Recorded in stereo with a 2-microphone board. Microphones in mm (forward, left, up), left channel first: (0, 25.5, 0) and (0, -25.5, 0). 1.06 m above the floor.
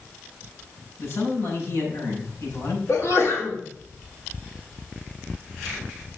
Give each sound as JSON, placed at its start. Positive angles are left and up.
{"t": 1.0, "sound": "a man speaking", "side_deg": 70, "distance_m": 6.0}
{"t": 2.9, "sound": "a sneeze", "side_deg": 70, "distance_m": 3.5}